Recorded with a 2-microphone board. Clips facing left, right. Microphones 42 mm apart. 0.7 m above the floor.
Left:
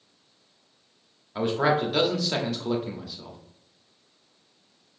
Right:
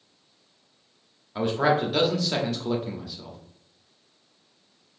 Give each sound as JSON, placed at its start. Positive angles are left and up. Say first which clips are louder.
{"t": 1.4, "sound": "a man speaking", "louder": "right 1 dB", "side_deg": 5, "distance_m": 1.1}